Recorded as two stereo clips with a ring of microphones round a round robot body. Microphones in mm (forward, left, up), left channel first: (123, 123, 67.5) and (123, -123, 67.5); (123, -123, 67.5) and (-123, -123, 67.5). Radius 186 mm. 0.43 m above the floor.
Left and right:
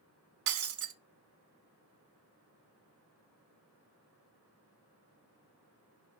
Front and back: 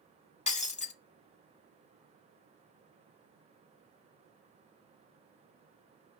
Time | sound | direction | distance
0.5 | breaking glass | 65° right | 0.7 m